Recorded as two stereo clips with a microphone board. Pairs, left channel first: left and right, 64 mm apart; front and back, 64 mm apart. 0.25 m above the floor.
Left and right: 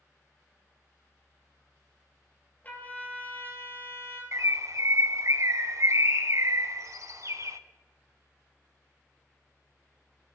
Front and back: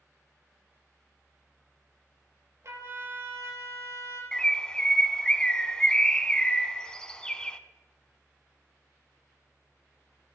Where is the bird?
75° right, 0.6 m.